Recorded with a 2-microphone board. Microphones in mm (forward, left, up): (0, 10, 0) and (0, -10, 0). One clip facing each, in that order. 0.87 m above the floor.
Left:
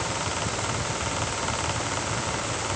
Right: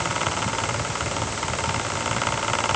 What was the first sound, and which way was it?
Only background noise.